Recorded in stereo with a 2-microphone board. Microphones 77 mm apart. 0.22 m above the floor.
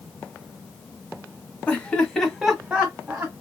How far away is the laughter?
About 1.4 m.